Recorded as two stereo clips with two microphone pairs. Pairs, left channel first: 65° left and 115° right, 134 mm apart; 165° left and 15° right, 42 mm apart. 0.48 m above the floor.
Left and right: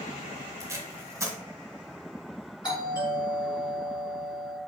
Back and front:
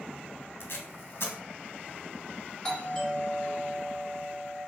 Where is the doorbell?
95° left, 1.8 m.